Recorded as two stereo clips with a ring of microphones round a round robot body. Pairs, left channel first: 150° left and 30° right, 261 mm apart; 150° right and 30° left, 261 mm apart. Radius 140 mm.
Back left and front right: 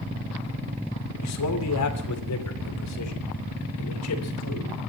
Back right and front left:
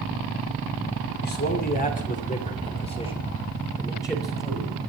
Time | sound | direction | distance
1.2 | a man speaking | 160° left | 2.5 m